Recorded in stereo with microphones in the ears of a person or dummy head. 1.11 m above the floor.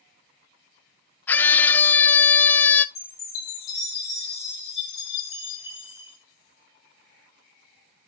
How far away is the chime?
About 4.5 m.